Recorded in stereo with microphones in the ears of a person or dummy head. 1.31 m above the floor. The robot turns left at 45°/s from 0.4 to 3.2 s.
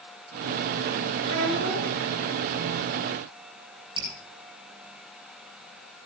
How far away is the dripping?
About 6.5 m.